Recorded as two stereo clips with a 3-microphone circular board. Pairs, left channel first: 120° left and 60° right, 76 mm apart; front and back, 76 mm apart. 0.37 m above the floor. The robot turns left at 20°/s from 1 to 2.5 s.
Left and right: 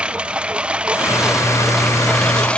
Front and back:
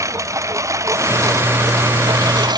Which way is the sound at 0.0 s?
135° right.